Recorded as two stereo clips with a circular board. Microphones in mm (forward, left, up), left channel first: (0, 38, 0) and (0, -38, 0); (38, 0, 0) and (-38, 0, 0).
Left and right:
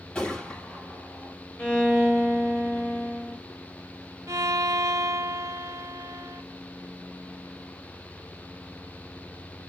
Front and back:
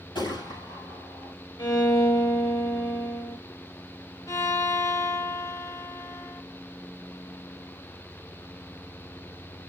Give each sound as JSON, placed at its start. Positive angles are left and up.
{"t": 0.1, "sound": "a gunshot", "azimuth_deg": 15, "distance_m": 4.5}
{"t": 1.6, "sound": "a violin", "azimuth_deg": 15, "distance_m": 1.5}
{"t": 4.3, "sound": "a violin", "azimuth_deg": -40, "distance_m": 1.2}